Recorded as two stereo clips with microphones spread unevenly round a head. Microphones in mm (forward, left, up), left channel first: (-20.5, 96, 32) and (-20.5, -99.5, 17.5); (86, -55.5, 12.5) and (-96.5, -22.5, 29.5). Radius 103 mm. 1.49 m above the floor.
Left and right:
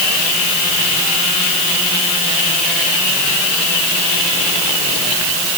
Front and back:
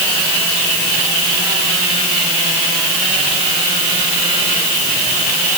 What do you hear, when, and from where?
Only background noise.